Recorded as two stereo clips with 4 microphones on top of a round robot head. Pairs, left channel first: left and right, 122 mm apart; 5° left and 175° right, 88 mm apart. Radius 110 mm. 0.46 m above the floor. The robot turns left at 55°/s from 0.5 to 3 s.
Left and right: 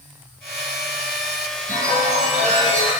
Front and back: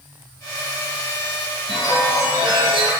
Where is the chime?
75° right, 3.5 m; by 2.9 s 145° right, 3.5 m.